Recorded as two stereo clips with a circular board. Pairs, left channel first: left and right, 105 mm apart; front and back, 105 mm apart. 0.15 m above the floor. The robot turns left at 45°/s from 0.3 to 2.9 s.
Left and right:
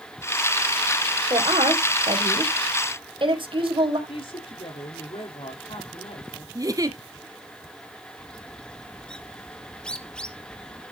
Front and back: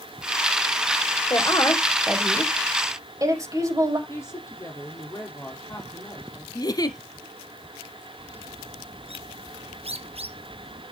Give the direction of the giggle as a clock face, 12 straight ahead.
1 o'clock.